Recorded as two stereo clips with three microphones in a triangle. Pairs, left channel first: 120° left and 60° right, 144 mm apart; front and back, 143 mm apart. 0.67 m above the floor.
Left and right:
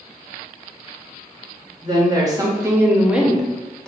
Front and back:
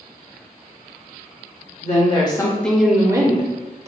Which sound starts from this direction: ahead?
A woman speaking, at 1.8 s.